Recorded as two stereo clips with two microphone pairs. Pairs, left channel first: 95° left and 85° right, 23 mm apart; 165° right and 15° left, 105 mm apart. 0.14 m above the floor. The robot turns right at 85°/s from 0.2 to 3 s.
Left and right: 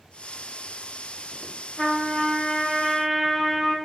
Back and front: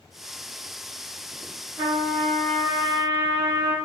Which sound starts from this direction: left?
A trumpet, at 1.8 s.